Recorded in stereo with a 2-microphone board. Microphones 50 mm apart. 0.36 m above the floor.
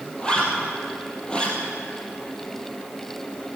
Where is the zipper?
20° left (ahead or behind), 3 m.